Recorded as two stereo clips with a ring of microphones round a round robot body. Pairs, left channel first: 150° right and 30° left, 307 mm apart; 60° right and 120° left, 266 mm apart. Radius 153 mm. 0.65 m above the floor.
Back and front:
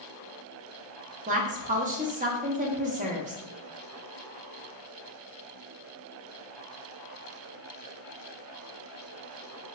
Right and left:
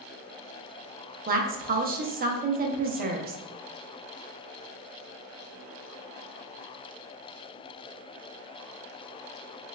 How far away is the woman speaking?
About 0.6 m.